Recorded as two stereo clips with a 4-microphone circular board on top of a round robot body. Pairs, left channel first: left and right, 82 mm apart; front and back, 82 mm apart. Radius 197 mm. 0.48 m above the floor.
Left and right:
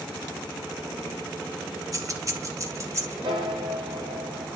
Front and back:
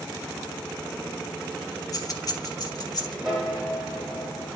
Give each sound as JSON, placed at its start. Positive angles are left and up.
{"t": 1.9, "sound": "keys jangling", "azimuth_deg": -45, "distance_m": 2.0}
{"t": 3.2, "sound": "a piano", "azimuth_deg": -95, "distance_m": 2.5}